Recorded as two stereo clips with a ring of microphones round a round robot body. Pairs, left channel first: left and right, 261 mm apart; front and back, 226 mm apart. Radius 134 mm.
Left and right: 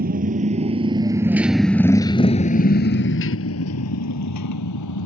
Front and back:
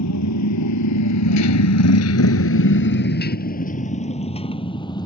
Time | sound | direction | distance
0.0 | a motorcycle | 30° right | ?